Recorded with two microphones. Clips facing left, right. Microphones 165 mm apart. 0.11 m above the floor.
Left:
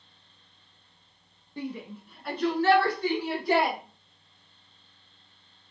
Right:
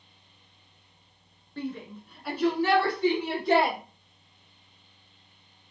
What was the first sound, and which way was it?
A shout, 15° left (ahead or behind).